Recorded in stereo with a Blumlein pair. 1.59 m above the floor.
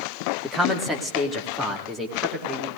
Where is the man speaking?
5° right, 2.0 m; by 2.7 s 10° right, 4 m.